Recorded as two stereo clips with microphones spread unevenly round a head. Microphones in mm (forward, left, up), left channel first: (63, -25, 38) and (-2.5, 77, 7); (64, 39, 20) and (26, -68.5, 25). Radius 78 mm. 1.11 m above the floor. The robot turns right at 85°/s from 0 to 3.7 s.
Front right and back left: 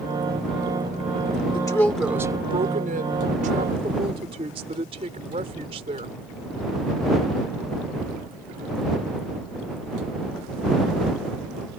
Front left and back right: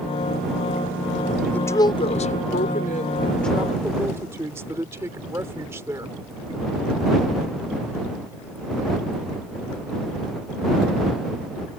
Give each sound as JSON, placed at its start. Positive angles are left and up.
{"t": 1.5, "sound": "a woman speaking", "azimuth_deg": -5}